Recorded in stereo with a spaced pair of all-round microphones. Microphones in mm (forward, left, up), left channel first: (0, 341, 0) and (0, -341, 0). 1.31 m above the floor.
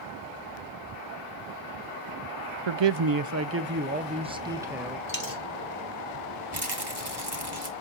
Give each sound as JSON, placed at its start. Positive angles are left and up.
{"t": 2.7, "sound": "a man speaking", "side_deg": -50, "distance_m": 0.5}
{"t": 5.1, "sound": "a dropped coin", "side_deg": 30, "distance_m": 2.0}
{"t": 6.5, "sound": "a rattle", "side_deg": -35, "distance_m": 1.8}